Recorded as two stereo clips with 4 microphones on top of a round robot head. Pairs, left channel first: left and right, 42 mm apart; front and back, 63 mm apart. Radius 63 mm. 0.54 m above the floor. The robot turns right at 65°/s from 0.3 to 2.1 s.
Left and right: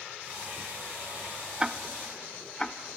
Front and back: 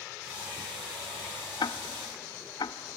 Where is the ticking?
15° right, 0.6 m; by 2.8 s 15° left, 0.6 m.